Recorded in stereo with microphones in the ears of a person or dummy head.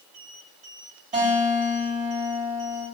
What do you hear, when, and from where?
1.1 s a guitar: 40° right (ahead or behind), 2.0 m